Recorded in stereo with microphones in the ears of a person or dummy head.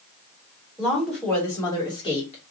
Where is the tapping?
I don't hear tapping.